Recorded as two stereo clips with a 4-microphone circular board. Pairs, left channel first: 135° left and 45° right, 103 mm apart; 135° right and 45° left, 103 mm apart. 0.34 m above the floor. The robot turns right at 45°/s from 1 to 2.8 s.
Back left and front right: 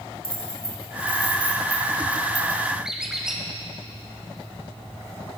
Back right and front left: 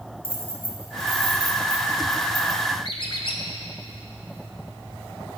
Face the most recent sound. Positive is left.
turn(degrees=-130)